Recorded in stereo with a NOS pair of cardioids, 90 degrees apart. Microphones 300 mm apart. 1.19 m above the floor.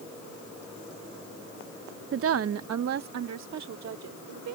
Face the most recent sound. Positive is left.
turn(degrees=-65)